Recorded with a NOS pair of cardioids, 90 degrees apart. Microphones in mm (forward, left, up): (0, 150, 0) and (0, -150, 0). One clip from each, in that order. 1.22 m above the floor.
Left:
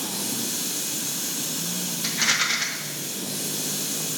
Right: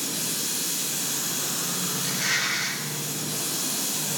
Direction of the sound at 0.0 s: 10° right.